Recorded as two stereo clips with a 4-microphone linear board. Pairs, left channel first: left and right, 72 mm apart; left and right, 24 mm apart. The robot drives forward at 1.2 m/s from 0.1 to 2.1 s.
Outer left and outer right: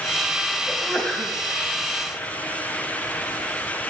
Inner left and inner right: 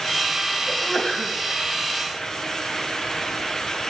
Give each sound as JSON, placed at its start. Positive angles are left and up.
{"t": 0.7, "sound": "a sneeze", "side_deg": 20, "distance_m": 3.5}